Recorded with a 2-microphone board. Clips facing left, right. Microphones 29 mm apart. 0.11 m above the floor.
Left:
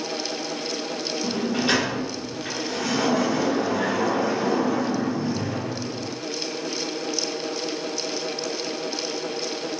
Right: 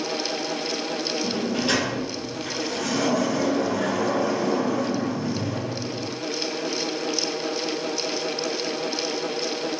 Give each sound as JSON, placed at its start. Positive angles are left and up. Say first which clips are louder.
{"t": 1.2, "sound": "a sliding door", "louder": "left 3 dB", "side_deg": 30, "distance_m": 1.4}